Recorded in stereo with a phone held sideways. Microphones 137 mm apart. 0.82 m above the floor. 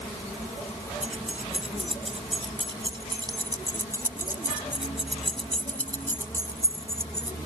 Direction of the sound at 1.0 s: 55° right (ahead or behind).